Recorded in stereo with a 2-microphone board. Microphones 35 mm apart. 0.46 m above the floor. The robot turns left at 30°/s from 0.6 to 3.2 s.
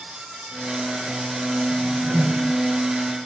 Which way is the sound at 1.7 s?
70° right (ahead or behind).